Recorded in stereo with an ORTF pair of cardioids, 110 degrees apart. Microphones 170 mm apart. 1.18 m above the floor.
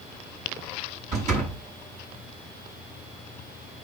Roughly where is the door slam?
Ahead right.